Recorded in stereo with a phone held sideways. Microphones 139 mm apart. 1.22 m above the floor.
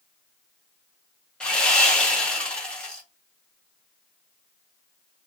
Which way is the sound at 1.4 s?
5° left (ahead or behind).